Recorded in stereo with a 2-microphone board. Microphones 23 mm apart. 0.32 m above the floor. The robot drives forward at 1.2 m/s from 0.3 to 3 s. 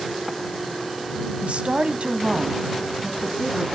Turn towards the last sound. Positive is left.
turn(degrees=-40)  # may be behind; listen again after turning